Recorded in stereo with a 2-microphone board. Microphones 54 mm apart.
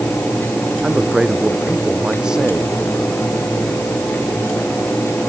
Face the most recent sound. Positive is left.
turn(degrees=-15)  # may be behind; listen again after turning